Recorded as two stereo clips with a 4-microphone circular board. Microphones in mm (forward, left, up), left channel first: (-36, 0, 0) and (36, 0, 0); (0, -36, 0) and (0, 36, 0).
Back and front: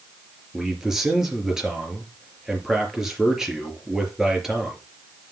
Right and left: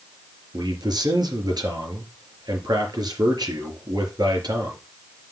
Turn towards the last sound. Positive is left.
turn(degrees=85)